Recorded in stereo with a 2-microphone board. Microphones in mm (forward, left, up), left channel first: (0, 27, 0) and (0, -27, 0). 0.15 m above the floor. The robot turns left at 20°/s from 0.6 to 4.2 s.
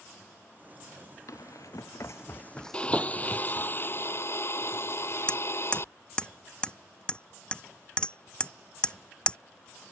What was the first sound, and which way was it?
Running footsteps, 80° left.